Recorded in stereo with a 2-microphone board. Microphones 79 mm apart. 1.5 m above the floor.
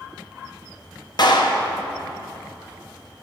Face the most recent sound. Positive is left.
turn(degrees=55)  # may be behind; listen again after turning